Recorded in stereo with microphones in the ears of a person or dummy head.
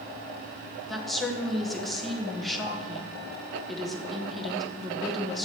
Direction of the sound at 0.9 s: 5° right (ahead or behind).